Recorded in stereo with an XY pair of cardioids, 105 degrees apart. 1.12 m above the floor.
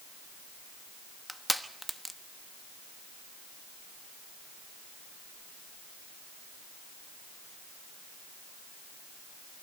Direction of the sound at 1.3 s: 5° right.